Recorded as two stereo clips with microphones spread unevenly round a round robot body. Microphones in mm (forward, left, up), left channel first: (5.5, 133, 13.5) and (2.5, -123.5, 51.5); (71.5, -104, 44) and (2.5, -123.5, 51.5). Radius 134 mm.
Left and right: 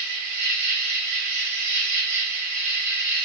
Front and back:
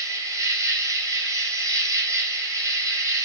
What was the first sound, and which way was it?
An insect, 120° right.